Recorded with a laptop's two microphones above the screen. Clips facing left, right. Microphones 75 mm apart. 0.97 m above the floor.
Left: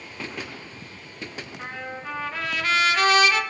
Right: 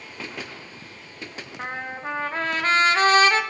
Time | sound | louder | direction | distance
1.6 | a trumpet | right 4 dB | 35° right (ahead or behind) | 1.0 m